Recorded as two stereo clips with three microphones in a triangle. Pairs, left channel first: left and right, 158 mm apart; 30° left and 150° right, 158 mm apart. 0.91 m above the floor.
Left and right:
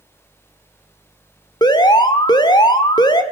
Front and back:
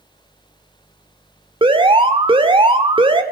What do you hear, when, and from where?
1.6 s an alarm: 155° left, 2 m